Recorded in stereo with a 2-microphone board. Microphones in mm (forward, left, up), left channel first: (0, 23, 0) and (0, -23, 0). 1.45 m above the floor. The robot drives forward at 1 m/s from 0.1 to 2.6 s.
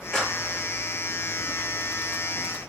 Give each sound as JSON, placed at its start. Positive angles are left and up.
{"t": 0.1, "sound": "a clap", "side_deg": 15, "distance_m": 3.0}